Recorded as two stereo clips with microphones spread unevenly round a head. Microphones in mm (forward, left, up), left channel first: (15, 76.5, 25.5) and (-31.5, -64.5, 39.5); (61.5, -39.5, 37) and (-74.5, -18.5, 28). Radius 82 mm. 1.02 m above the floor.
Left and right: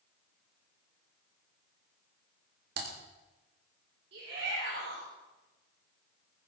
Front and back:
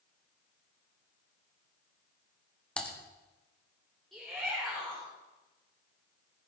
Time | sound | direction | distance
2.8 | typing on a keyboard | 90° right | 2 m
4.1 | a shout | 100° right | 3.5 m